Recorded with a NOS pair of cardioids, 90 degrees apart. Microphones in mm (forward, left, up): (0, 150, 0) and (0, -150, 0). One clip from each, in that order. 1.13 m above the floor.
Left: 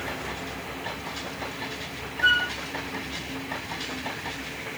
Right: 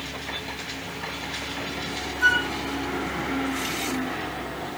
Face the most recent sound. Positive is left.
turn(degrees=-65)